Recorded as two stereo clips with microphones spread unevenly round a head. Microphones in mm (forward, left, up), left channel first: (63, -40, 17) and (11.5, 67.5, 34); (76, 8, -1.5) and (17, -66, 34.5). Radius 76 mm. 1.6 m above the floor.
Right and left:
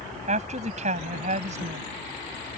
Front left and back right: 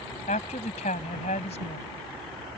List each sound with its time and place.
0.3 s a woman speaking: 90° left